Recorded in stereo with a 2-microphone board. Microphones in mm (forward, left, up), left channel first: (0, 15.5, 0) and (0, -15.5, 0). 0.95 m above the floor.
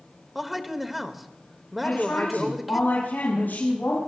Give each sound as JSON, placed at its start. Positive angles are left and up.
{"t": 0.3, "sound": "a man speaking", "side_deg": 0, "distance_m": 1.4}
{"t": 1.8, "sound": "a woman speaking", "side_deg": 85, "distance_m": 6.0}